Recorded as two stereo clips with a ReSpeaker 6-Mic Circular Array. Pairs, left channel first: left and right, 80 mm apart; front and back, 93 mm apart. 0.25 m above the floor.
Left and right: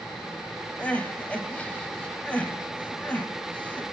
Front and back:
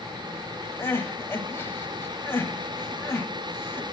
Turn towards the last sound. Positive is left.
turn(degrees=35)